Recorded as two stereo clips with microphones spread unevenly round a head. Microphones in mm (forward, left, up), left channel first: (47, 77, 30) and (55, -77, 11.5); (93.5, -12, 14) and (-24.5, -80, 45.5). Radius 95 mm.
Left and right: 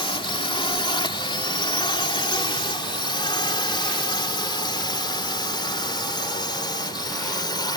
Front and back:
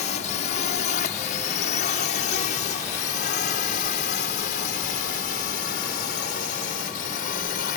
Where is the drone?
35° left; by 7.8 s 30° left.